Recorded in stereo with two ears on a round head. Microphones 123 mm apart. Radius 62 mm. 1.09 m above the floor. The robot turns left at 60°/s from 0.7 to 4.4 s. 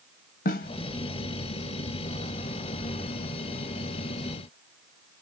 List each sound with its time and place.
0.5 s a snare drum: 70° left (ahead or behind), 0.8 m